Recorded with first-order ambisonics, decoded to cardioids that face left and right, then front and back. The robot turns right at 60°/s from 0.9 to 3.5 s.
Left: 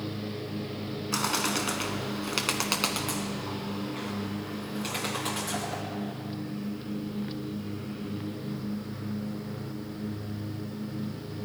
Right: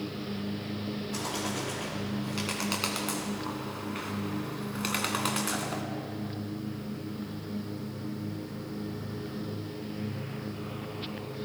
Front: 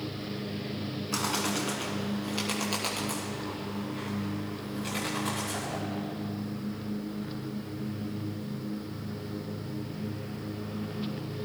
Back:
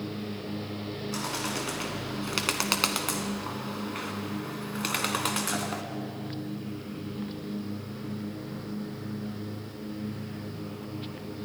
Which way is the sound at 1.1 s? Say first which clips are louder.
Left 7 dB, front 3 dB; 65° left.